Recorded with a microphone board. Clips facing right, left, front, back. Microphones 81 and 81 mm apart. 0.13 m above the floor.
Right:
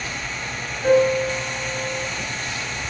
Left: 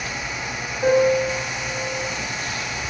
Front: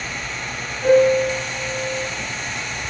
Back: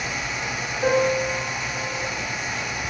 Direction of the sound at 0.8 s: 130° left.